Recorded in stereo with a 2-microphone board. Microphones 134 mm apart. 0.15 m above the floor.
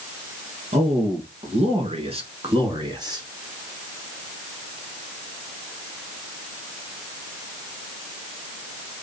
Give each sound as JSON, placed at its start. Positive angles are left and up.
{"t": 0.7, "sound": "a man speaking", "side_deg": -55, "distance_m": 3.0}